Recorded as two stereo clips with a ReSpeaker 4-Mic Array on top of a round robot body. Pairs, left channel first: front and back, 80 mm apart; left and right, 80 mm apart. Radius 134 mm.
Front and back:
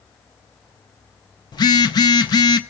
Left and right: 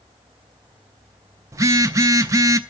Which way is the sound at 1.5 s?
35° right.